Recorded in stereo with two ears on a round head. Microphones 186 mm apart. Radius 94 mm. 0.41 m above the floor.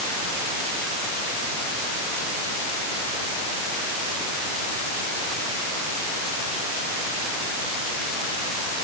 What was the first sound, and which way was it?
Only background noise.